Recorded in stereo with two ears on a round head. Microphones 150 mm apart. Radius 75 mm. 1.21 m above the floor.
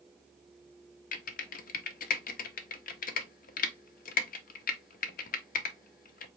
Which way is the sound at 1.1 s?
55° left (ahead or behind).